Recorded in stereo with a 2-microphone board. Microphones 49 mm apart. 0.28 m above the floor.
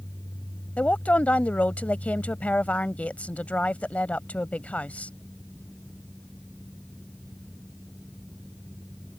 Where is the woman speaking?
30° left (ahead or behind).